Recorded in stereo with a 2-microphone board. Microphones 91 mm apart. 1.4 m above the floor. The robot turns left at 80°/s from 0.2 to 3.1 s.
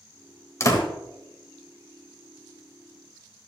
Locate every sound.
0.6 s a door slam: 30° left (ahead or behind), 1.5 m; by 0.9 s 55° left (ahead or behind), 1.5 m